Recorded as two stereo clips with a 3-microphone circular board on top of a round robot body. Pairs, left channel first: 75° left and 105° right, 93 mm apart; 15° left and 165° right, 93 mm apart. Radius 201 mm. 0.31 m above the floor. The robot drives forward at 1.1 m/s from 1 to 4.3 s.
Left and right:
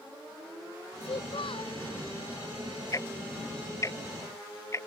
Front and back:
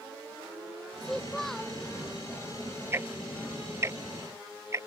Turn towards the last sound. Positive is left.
turn(degrees=135)